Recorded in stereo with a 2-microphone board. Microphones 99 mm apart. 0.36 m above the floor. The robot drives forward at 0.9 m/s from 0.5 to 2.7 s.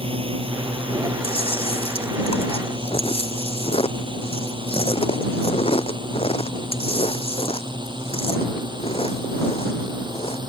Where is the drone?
70° right (ahead or behind); by 10.5 s 50° right (ahead or behind).